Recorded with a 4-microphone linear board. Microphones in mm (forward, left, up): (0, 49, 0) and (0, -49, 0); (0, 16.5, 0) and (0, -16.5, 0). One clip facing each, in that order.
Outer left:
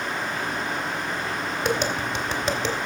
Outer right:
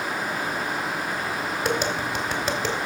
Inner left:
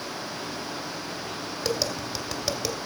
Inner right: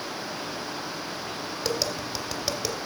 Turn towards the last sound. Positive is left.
turn(degrees=-5)  # may be behind; listen again after turning